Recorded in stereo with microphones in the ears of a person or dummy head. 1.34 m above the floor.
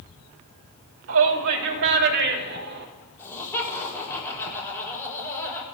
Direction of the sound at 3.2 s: 15° left (ahead or behind).